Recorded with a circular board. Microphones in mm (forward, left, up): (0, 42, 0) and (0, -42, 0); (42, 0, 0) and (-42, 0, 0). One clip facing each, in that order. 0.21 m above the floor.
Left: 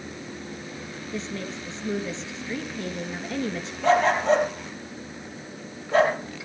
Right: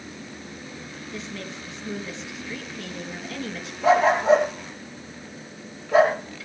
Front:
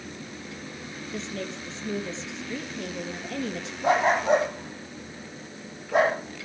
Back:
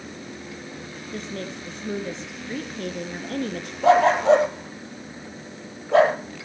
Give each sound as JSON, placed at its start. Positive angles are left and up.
{"t": 1.1, "sound": "a woman speaking", "azimuth_deg": 150, "distance_m": 2.5}
{"t": 3.8, "sound": "a dog barking", "azimuth_deg": -170, "distance_m": 3.0}